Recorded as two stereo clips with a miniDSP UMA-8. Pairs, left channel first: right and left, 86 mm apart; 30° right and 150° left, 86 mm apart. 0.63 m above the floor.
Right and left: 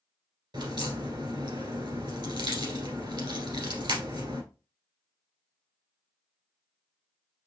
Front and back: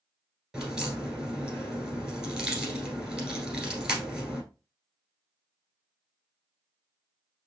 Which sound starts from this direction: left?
A crack, at 0.5 s.